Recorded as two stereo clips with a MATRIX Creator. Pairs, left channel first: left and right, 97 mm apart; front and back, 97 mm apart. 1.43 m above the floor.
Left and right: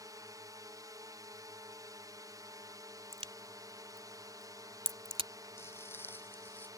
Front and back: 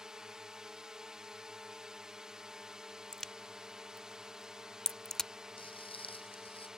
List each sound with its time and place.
0.0 s a drone: 100° right
3.1 s a crack: 85° right
5.6 s footsteps: 25° left; by 6.7 s 20° left